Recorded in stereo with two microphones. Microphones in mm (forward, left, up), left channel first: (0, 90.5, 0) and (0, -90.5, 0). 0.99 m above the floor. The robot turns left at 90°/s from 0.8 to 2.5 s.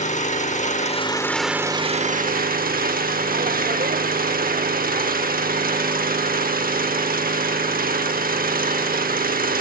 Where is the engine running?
55° left, 0.8 m; by 9.6 s 95° right, 0.8 m.